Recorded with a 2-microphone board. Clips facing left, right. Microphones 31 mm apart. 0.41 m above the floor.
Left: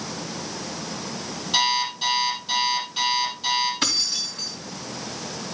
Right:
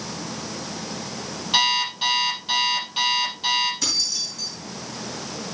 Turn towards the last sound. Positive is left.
turn(degrees=45)  # may be behind; listen again after turning